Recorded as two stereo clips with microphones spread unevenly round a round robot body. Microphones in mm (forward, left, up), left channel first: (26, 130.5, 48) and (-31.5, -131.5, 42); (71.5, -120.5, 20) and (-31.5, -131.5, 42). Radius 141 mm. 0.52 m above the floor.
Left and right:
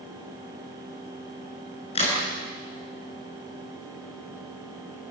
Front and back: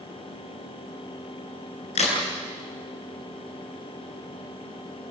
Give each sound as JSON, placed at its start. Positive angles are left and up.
{"t": 1.9, "sound": "a crack", "azimuth_deg": 10, "distance_m": 8.5}